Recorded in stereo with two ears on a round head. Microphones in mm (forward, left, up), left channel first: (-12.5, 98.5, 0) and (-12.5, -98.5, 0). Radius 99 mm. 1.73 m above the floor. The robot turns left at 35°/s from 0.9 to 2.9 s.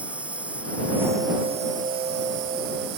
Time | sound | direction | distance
0.0 | an insect | 5° right | ?